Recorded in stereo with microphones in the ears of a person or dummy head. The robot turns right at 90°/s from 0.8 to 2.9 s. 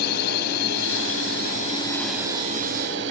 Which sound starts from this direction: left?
A drone, at 0.0 s.